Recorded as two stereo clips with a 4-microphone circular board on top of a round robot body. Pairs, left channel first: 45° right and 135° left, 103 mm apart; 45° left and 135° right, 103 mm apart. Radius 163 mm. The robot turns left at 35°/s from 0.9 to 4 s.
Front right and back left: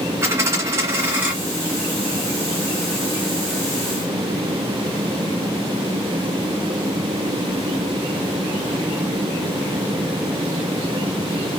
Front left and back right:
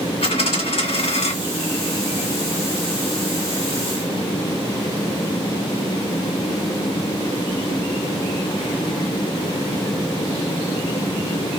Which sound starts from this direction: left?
A dropped coin, at 0.2 s.